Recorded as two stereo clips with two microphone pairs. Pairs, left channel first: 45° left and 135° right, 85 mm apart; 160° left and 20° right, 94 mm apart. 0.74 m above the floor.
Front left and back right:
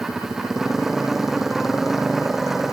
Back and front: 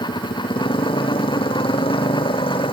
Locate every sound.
0.0 s a motorcycle: 140° left